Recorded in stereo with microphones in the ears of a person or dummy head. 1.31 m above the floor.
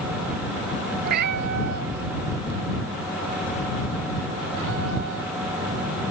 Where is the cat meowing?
55° right (ahead or behind); by 5.3 s 70° right (ahead or behind).